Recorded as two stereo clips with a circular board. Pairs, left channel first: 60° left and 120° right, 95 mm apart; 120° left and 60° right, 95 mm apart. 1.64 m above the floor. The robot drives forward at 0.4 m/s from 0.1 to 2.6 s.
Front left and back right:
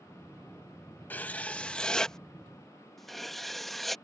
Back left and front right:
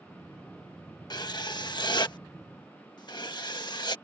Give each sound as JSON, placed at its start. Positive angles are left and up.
{"t": 1.1, "sound": "writing", "azimuth_deg": 125}